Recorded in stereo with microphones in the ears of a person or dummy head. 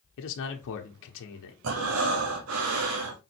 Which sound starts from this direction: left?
A man speaking, at 0.2 s.